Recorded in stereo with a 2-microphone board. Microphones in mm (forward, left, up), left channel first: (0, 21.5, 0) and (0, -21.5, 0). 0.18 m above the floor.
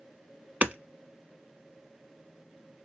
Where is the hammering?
45° right (ahead or behind), 0.6 m.